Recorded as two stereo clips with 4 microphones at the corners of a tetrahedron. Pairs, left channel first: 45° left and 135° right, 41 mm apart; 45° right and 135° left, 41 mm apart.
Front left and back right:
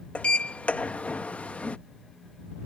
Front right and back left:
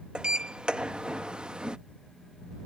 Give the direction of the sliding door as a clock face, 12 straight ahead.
9 o'clock.